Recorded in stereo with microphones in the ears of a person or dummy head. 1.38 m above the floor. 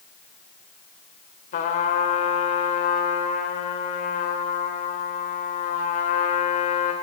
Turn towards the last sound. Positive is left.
turn(degrees=45)  # may be behind; listen again after turning